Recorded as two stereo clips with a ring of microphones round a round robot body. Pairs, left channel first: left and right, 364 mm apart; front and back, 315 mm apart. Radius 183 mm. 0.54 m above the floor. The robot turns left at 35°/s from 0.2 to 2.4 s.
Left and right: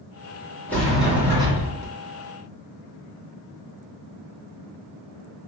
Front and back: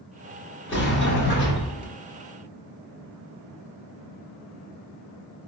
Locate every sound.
0.7 s a sliding door: 10° left, 1.5 m; by 1.9 s 35° right, 1.5 m